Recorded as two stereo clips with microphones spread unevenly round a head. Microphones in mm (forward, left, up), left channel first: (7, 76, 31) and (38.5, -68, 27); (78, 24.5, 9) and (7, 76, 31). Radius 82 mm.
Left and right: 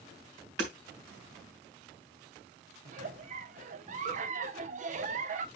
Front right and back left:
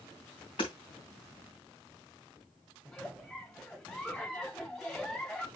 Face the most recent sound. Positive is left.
turn(degrees=-120)